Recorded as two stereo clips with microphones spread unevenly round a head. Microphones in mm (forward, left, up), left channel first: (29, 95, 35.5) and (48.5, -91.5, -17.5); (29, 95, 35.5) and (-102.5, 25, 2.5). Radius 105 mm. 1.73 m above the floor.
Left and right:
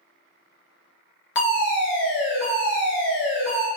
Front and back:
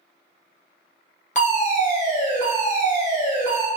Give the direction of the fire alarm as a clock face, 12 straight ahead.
10 o'clock.